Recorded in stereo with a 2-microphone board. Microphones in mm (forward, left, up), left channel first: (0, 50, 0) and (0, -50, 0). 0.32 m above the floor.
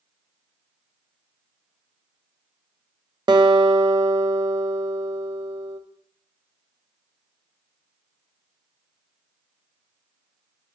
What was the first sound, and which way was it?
A guitar, 45° right (ahead or behind).